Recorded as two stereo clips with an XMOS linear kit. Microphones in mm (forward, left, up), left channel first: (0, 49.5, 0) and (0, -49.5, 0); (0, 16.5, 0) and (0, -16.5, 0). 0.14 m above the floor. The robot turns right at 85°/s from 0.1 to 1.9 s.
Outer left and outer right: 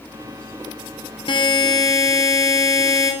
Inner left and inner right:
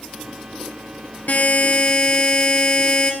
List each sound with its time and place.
1.3 s a buzzer: 85° left, 1.9 m; by 3.1 s 140° left, 1.9 m